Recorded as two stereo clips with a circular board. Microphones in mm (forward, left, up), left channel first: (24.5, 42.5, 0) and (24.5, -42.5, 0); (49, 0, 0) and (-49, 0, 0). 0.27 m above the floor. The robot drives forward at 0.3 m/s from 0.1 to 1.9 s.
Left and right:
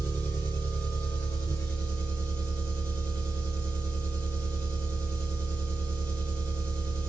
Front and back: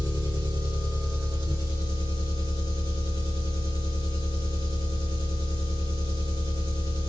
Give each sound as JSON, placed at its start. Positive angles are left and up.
{"t": 0.0, "sound": "an engine running", "azimuth_deg": 150, "distance_m": 2.5}